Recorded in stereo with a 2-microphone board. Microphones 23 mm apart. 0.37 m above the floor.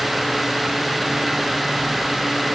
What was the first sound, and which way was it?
Only background noise.